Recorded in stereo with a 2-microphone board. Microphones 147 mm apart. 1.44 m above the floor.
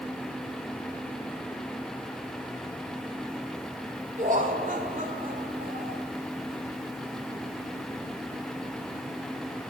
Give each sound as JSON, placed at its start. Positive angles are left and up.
{"t": 4.2, "sound": "laughter", "side_deg": -55, "distance_m": 2.5}